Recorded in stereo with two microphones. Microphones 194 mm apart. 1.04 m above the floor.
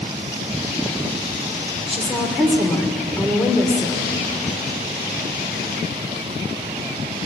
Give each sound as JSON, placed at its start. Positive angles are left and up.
{"t": 1.9, "sound": "a woman speaking", "side_deg": 0, "distance_m": 3.0}